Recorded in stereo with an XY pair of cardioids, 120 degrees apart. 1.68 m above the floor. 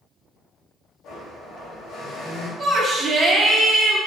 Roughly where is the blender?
Ahead left.